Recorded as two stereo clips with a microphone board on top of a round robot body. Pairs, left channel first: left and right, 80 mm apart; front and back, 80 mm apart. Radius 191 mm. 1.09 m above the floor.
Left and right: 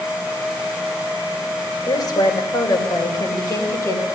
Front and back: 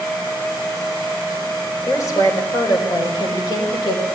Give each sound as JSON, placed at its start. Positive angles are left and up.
{"t": 1.9, "sound": "a woman speaking", "azimuth_deg": 50, "distance_m": 4.0}